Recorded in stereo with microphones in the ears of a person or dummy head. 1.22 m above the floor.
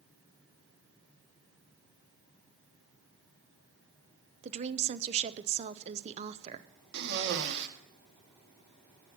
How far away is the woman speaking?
About 0.6 m.